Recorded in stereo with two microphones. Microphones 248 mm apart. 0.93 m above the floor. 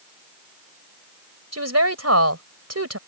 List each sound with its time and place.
1.5 s a woman speaking: 85° right